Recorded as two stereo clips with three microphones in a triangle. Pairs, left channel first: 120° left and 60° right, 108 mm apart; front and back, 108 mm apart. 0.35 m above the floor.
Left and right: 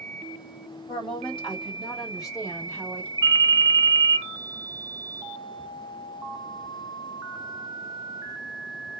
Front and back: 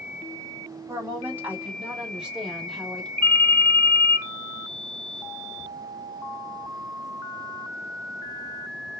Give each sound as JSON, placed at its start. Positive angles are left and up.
{"t": 0.9, "sound": "a woman speaking", "azimuth_deg": 120, "distance_m": 1.8}
{"t": 3.2, "sound": "a ringtone", "azimuth_deg": 165, "distance_m": 0.6}